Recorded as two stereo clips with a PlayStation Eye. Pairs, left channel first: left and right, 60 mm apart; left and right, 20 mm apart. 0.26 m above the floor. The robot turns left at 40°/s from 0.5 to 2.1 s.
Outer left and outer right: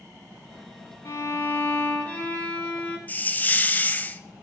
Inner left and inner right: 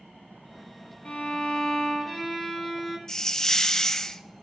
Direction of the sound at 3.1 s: 30° left (ahead or behind).